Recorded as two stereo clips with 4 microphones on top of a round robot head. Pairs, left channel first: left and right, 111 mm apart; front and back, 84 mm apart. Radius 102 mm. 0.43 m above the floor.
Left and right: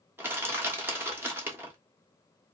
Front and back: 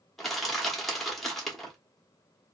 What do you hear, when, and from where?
0.2 s crushing: 85° right, 1.0 m